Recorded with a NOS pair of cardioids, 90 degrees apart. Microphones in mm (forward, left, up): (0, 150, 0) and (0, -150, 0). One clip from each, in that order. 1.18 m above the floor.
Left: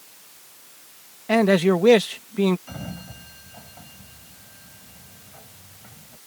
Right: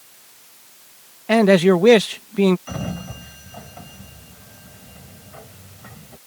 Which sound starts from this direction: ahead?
A man speaking, at 1.3 s.